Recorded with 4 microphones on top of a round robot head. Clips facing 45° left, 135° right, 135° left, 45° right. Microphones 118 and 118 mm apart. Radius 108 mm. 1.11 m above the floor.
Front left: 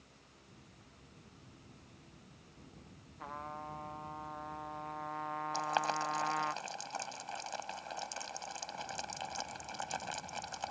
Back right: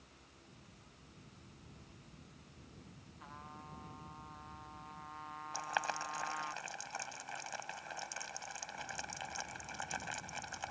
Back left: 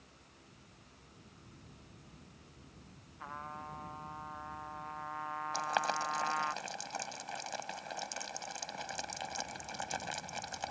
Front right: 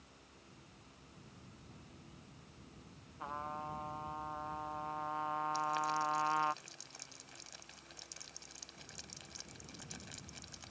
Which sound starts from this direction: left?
Boiling, at 5.5 s.